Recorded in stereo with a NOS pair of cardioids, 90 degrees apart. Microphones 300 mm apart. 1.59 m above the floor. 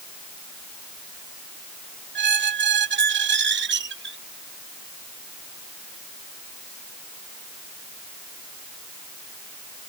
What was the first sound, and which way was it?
A squeak, 40° right.